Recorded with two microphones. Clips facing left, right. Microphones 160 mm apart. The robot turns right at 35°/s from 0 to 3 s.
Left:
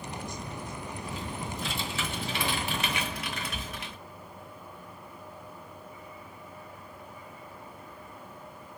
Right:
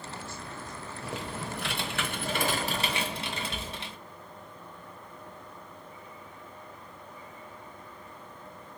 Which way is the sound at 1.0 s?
100° right.